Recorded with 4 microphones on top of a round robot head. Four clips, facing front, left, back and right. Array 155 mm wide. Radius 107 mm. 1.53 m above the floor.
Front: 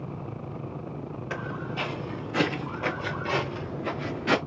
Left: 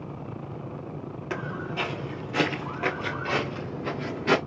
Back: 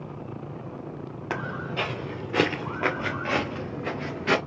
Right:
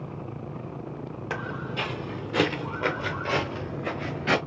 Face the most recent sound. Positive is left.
turn(degrees=-110)